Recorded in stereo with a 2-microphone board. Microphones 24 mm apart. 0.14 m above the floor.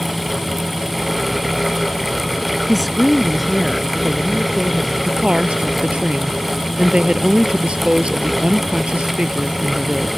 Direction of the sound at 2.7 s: 5° left (ahead or behind).